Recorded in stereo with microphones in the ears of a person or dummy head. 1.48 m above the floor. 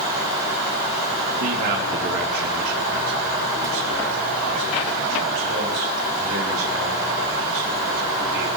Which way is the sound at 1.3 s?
55° right (ahead or behind).